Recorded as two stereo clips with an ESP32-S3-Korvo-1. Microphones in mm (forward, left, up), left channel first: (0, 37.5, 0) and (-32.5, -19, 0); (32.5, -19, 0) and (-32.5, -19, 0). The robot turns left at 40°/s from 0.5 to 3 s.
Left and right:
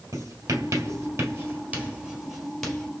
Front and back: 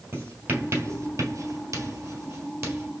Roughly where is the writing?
Behind right.